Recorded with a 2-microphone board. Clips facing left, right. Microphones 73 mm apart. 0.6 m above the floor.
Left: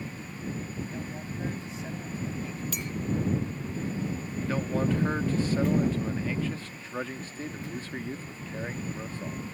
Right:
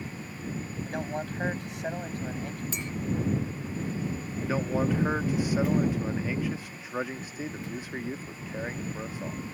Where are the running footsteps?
I don't hear running footsteps.